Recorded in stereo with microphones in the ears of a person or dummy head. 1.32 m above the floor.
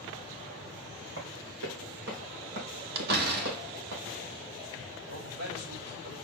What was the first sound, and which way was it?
Running footsteps, 70° right (ahead or behind).